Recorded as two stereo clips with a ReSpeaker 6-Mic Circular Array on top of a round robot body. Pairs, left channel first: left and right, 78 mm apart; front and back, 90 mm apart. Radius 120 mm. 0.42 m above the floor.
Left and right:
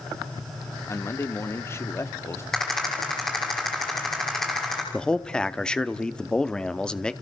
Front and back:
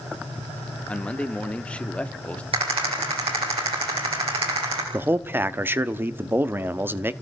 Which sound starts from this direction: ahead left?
A man speaking, at 0.9 s.